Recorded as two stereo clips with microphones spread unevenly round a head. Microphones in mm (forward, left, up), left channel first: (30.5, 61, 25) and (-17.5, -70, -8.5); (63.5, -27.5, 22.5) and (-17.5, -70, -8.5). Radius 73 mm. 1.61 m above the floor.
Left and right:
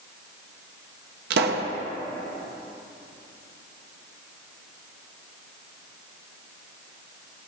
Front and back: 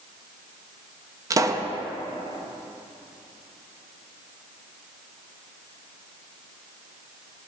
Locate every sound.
1.3 s a pop: 95° right, 1.1 m